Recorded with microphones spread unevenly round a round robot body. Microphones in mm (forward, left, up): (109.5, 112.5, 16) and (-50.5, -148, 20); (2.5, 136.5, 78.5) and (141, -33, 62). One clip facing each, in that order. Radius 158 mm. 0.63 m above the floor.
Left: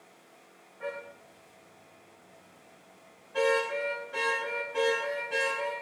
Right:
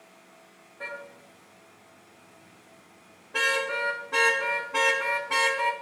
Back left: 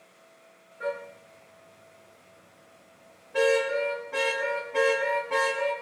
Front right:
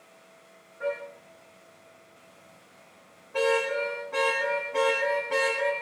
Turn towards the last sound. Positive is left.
turn(degrees=-130)